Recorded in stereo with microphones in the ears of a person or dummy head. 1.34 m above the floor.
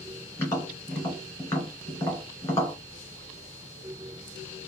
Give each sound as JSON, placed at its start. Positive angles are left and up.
{"t": 0.4, "sound": "tapping", "side_deg": 15, "distance_m": 2.0}